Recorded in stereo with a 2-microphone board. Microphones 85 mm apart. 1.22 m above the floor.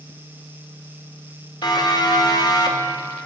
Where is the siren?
60° left (ahead or behind), 4 m; by 3.0 s 55° left (ahead or behind), 1.9 m.